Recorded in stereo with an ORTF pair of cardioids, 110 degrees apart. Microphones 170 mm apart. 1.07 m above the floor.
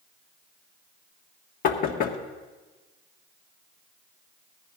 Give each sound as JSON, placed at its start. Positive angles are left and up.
{"t": 1.6, "sound": "knocking", "azimuth_deg": 60, "distance_m": 1.2}